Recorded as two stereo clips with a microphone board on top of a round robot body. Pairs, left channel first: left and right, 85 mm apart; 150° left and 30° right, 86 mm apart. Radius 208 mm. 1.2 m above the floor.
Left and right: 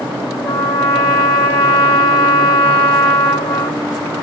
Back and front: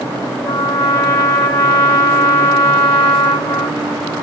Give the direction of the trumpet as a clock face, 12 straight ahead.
8 o'clock.